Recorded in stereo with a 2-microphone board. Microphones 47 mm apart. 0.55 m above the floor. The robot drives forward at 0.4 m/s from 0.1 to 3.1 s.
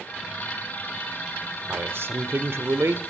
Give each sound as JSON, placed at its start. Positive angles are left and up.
{"t": 1.7, "sound": "a man speaking", "side_deg": -60, "distance_m": 1.4}